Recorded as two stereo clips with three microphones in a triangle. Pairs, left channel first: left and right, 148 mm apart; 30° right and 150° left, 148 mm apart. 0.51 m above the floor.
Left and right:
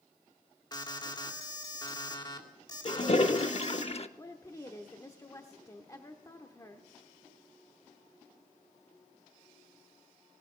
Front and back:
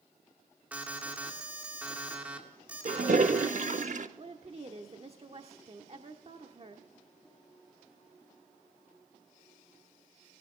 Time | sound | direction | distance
0.7 | an alarm | 80° left | 2 m
2.9 | a toilet flushing | 130° left | 0.7 m
4.2 | a woman speaking | 145° left | 1.0 m